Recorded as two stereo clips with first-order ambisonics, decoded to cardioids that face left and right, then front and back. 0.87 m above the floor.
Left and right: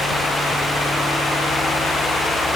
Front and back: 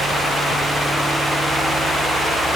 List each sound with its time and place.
Only background noise.